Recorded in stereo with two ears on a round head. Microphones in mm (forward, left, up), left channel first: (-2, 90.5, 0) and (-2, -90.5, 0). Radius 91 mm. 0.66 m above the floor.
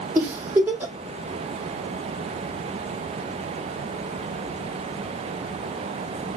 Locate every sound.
0.1 s a giggle: 10° right (ahead or behind), 0.7 m